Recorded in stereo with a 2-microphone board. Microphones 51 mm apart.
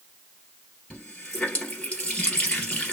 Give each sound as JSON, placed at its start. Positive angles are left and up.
{"t": 0.9, "sound": "a running tap", "side_deg": 25, "distance_m": 1.8}